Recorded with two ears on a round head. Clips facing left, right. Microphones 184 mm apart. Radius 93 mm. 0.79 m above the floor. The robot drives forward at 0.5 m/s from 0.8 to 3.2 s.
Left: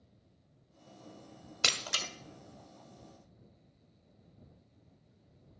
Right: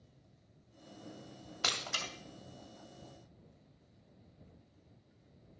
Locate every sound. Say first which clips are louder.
1.6 s breaking glass: left 1 dB; 30° left (ahead or behind), 1.1 m; by 2.1 s 35° left (ahead or behind), 1.0 m